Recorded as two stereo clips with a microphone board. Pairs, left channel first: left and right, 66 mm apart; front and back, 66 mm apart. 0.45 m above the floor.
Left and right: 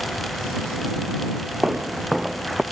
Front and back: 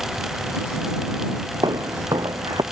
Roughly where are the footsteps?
Behind.